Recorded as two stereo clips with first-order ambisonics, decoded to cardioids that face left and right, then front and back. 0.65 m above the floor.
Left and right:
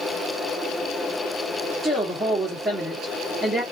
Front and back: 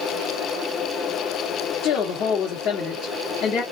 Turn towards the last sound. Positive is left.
turn(degrees=-10)